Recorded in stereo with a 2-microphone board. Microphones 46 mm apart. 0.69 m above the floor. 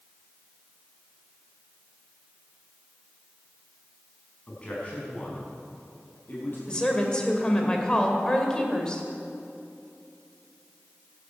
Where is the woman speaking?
20° left (ahead or behind), 2.5 m.